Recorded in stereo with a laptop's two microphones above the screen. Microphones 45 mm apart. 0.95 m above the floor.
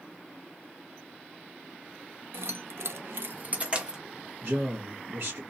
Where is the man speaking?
55° right (ahead or behind), 1.2 m.